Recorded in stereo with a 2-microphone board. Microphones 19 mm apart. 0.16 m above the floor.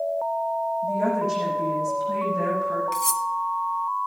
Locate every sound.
0.8 s a woman speaking: 5° right (ahead or behind), 8 m
2.9 s cutlery clinking: 15° left (ahead or behind), 0.7 m